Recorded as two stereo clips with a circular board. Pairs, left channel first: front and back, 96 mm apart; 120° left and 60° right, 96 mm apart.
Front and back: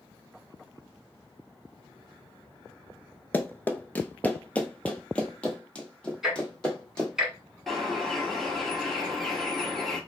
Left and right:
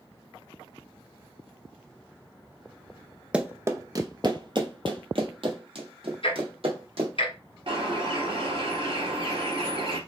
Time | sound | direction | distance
3.3 | running footsteps | 10° right | 0.5 m
6.2 | ticking | 95° left | 1.3 m
7.7 | a bird | 90° right | 2.0 m